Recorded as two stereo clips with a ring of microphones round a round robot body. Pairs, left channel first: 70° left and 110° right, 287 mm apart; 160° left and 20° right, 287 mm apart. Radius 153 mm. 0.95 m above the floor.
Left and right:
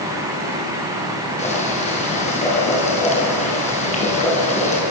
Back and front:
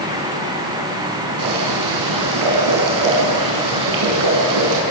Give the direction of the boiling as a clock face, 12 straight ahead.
12 o'clock.